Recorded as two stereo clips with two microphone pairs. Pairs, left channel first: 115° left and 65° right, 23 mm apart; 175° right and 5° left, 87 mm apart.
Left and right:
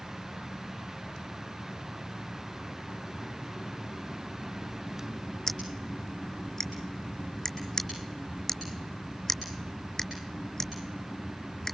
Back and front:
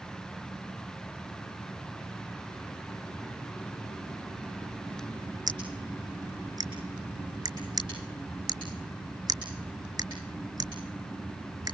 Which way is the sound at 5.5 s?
45° left.